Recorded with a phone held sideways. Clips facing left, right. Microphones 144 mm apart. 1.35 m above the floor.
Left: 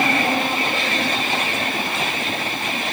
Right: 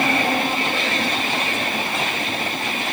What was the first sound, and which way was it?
Only background noise.